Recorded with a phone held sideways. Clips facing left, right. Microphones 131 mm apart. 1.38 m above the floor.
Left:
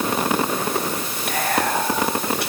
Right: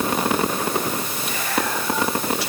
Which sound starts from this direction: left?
Whispering, at 1.3 s.